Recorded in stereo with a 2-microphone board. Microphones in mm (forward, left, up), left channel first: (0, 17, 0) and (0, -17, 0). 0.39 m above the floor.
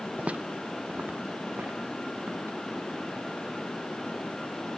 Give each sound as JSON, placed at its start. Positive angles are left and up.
{"t": 0.2, "sound": "footsteps", "side_deg": -40, "distance_m": 0.5}